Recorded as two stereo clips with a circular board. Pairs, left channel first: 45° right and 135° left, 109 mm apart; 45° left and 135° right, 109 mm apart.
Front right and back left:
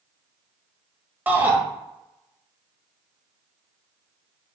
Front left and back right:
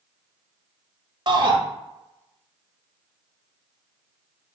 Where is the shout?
155° right, 1.3 m.